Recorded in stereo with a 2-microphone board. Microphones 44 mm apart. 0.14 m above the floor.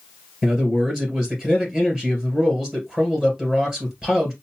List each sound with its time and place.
0.4 s a man speaking: 10° right (ahead or behind), 2 m